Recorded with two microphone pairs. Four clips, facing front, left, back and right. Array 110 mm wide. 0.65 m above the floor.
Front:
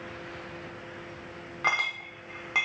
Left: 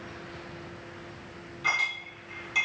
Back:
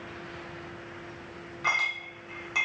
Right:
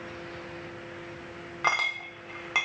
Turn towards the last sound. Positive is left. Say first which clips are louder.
# right 3 dB, front 1 dB
turn(degrees=-75)